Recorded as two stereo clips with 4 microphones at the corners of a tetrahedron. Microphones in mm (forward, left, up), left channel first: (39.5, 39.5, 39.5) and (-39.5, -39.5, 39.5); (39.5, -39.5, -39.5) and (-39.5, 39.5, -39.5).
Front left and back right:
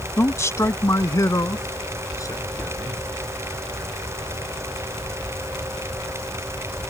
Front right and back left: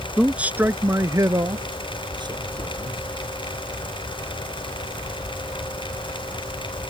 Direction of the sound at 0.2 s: 55° left.